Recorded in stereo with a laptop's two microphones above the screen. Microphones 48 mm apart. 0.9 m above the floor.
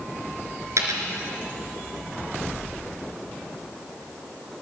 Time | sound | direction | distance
0.8 | a dropped coin | 80° right | 3 m